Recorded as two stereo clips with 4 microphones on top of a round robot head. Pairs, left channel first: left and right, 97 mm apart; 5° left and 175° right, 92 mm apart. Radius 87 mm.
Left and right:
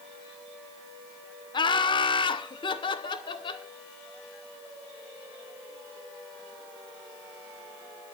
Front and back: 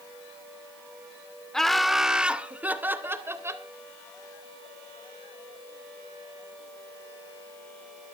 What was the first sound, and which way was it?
Laughter, 90° left.